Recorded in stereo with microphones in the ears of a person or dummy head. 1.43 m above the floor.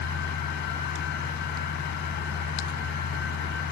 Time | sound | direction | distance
0.0 | a fan | 60° left (ahead or behind) | ?